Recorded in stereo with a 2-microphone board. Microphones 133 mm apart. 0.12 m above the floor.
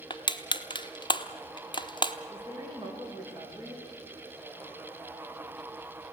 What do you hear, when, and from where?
0.1 s crushing: 35° left (ahead or behind), 0.9 m
2.3 s a woman speaking: 30° right (ahead or behind), 6.5 m